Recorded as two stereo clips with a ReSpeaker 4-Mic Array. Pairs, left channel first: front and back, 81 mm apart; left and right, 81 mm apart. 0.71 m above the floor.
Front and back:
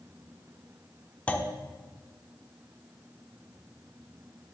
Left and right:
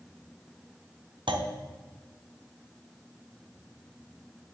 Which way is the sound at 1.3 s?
75° right.